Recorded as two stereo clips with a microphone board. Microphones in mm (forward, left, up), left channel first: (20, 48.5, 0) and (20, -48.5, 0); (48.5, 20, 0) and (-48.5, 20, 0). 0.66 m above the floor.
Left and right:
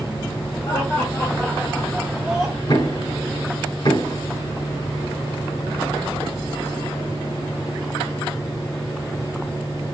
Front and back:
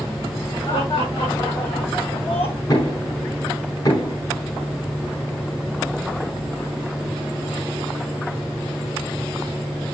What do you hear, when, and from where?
0.7 s laughter: 35° left, 3 m; by 2.6 s 5° right, 4.5 m
2.7 s knocking: 50° left, 6.5 m